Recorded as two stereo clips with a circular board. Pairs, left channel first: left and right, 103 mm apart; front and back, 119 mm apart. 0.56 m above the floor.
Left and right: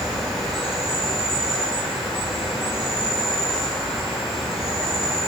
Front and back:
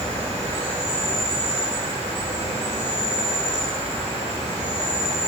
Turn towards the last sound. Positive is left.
turn(degrees=-175)